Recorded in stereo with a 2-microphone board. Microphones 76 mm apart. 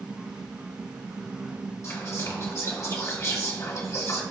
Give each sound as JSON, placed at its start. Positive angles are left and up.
{"t": 1.8, "sound": "whispering", "side_deg": 40, "distance_m": 3.0}